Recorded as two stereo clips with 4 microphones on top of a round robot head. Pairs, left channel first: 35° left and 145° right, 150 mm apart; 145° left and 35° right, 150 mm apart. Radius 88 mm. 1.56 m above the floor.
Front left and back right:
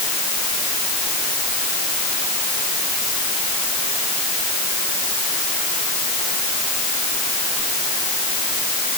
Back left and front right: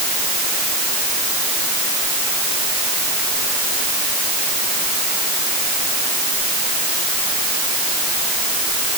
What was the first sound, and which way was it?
Only background noise.